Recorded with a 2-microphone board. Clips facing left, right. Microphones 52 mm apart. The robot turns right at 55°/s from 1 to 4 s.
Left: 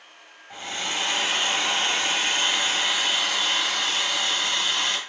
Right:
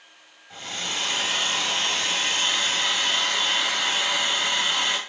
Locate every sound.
0.5 s a hair dryer: 45° left, 1.3 m; by 5.0 s 150° right, 1.3 m